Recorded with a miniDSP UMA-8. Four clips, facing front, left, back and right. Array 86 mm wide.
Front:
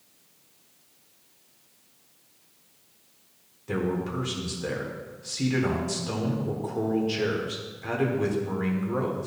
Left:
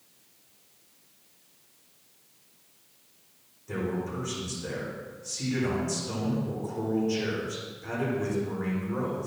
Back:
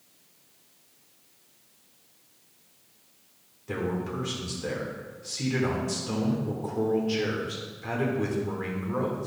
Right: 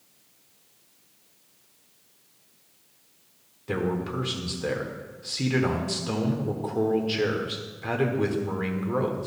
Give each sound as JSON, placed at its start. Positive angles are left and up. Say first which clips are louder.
{"t": 3.7, "sound": "a man speaking", "louder": "right 4 dB, front 2 dB", "azimuth_deg": -80, "distance_m": 1.2}